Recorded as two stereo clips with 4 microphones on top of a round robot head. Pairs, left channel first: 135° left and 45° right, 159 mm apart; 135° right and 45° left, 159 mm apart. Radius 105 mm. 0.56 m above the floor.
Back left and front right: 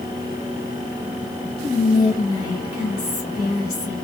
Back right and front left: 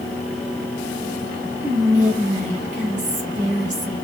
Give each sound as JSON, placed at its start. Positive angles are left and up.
{"t": 1.6, "sound": "whispering", "azimuth_deg": 70, "distance_m": 1.1}